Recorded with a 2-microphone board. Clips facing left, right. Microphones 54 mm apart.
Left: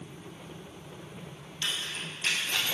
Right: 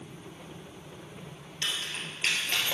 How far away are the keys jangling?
About 1.9 m.